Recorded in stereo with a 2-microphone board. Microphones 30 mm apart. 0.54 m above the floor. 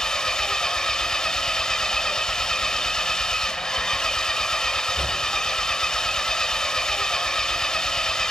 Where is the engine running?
25° left (ahead or behind), 1.5 m.